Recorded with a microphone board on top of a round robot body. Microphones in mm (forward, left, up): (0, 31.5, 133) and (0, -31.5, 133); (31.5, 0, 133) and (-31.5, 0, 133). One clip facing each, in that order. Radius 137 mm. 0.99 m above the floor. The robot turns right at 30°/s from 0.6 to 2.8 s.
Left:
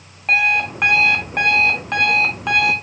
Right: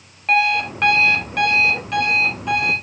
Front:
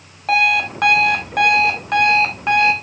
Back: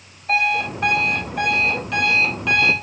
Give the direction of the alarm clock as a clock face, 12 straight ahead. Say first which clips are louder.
Even, front 4 dB; 12 o'clock.